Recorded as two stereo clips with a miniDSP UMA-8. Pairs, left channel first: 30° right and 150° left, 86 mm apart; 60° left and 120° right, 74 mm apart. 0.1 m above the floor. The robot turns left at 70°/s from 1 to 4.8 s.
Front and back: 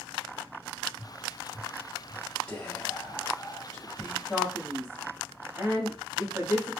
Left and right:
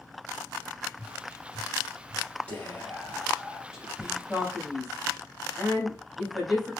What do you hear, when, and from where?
1.0 s tapping: 75° left, 2 m; by 2.2 s 10° right, 2 m
2.5 s whispering: 25° left, 1.8 m; by 4.2 s 100° right, 1.8 m
4.3 s a man speaking: 160° right, 1.7 m; by 6.7 s 165° left, 1.7 m